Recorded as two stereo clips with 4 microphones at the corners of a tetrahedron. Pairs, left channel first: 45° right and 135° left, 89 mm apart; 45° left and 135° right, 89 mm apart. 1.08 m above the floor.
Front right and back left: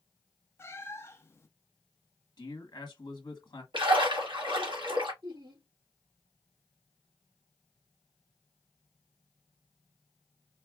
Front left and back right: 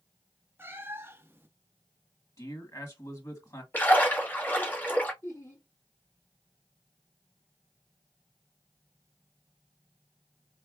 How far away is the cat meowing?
About 0.5 m.